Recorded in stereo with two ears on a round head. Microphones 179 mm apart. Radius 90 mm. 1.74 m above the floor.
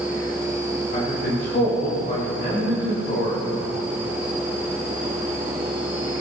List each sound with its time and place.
0.9 s a man speaking: 55° left (ahead or behind), 5.5 m